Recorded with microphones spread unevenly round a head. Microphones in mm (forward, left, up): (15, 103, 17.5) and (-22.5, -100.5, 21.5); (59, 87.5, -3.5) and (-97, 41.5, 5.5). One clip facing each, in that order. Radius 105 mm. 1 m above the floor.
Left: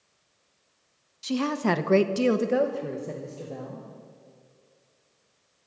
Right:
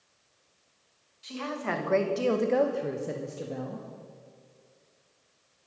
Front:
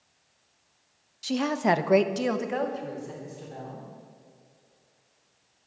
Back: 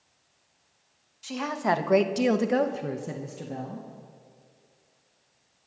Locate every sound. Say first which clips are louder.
1.2 s a woman speaking: left 9 dB, front 3 dB; 60° left, 1.2 m; by 3.9 s 165° right, 1.9 m